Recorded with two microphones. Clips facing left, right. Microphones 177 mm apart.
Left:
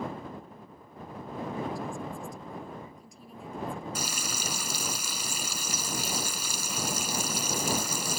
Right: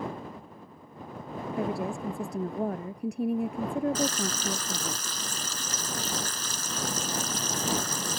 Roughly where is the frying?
Centre.